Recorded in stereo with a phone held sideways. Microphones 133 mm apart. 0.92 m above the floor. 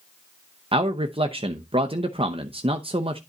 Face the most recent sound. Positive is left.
turn(degrees=-45)  # may be behind; listen again after turning